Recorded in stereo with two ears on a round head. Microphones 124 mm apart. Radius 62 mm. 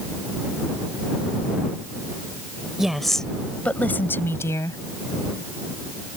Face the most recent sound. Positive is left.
turn(degrees=25)  # may be behind; listen again after turning